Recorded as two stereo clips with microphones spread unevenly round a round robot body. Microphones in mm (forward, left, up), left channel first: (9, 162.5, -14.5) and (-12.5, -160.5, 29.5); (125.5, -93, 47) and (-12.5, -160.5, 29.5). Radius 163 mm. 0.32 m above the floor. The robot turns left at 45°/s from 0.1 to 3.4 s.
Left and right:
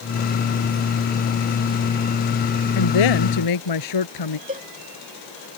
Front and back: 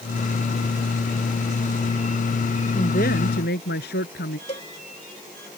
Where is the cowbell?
25° right.